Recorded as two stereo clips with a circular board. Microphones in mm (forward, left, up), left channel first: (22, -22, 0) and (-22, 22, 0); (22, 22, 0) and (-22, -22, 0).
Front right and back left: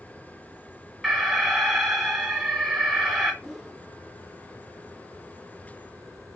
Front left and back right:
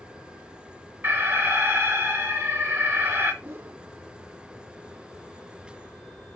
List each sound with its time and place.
1.0 s an alarm: 130° right, 2 m
3.4 s a whoosh: 145° right, 0.6 m